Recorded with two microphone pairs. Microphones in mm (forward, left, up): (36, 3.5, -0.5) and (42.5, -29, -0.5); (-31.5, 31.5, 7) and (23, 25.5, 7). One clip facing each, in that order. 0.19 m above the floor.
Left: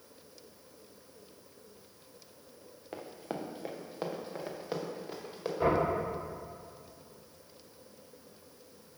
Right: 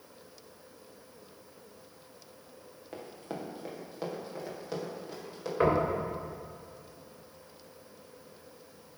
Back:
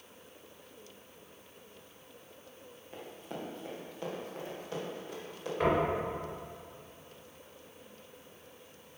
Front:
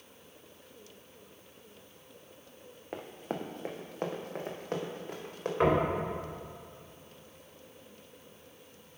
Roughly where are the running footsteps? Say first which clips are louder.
Left 1 dB, front 5 dB; ahead left.